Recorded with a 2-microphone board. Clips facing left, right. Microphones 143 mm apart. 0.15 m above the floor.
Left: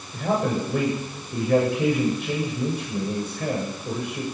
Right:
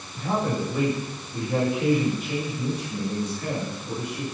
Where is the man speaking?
60° left (ahead or behind), 10 m.